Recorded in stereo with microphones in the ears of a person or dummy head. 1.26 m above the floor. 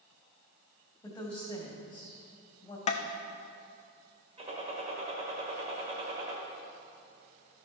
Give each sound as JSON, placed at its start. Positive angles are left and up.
{"t": 1.0, "sound": "a woman speaking", "side_deg": 20, "distance_m": 1.9}
{"t": 2.9, "sound": "tapping", "side_deg": 40, "distance_m": 0.6}
{"t": 4.4, "sound": "a gunshot", "side_deg": -35, "distance_m": 1.7}